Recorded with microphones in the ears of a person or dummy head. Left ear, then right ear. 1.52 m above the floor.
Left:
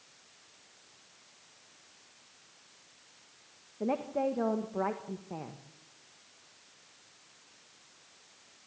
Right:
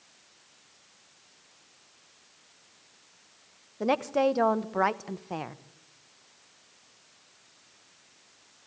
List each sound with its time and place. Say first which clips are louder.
3.8 s a woman speaking: right 7 dB; 65° right (ahead or behind), 1.0 m